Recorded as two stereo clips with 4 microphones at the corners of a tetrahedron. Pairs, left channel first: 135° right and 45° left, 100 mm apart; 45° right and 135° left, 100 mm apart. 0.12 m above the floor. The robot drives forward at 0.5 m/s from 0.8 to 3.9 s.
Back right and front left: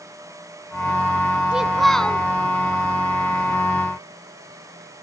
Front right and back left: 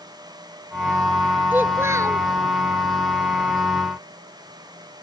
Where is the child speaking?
110° left, 0.7 m; by 2.3 s 155° left, 0.8 m.